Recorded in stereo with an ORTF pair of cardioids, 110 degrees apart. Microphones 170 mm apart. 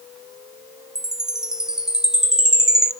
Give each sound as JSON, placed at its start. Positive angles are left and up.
{"t": 0.9, "sound": "a chime", "azimuth_deg": -5, "distance_m": 1.1}